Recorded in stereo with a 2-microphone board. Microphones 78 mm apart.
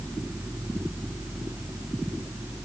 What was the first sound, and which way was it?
Only background noise.